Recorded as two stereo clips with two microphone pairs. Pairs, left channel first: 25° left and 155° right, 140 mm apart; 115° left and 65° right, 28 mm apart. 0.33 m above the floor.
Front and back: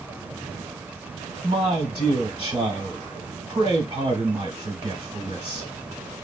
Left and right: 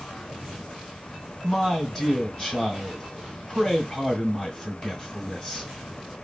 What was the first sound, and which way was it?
A man speaking, 170° left.